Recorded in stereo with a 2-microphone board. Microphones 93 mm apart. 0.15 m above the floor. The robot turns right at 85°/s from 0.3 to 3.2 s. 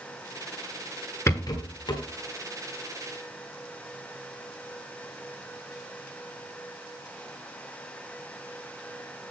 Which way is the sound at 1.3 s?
35° left.